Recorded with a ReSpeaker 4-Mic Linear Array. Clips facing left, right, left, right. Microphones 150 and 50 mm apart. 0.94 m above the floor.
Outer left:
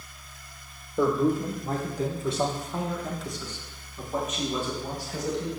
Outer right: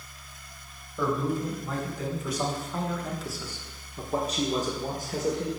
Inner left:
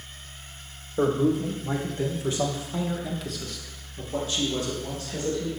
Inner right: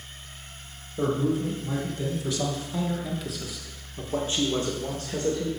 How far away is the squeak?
I don't hear a squeak.